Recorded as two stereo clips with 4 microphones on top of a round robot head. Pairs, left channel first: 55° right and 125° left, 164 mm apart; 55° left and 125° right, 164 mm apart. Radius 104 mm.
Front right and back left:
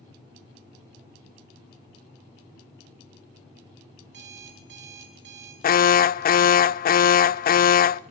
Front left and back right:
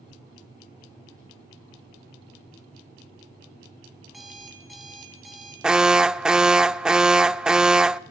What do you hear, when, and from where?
4.0 s an alarm clock: 145° left, 4 m
5.6 s an alarm: 40° right, 0.5 m